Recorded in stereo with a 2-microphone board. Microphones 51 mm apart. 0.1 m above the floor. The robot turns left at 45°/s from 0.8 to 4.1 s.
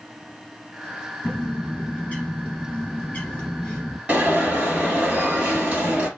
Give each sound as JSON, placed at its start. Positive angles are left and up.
{"t": 1.2, "sound": "a bird", "side_deg": 15, "distance_m": 1.8}
{"t": 4.1, "sound": "an alarm", "side_deg": -25, "distance_m": 1.7}